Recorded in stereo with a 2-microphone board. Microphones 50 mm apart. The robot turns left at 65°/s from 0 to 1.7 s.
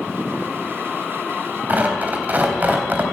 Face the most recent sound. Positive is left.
turn(degrees=-35)  # may be behind; listen again after turning